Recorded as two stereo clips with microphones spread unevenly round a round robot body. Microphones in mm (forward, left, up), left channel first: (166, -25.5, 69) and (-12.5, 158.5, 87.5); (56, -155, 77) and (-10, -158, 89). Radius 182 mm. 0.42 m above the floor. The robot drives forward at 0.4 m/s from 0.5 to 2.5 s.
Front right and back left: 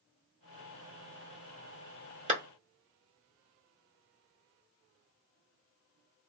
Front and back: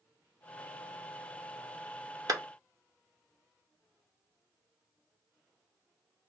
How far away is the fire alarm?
I don't hear a fire alarm.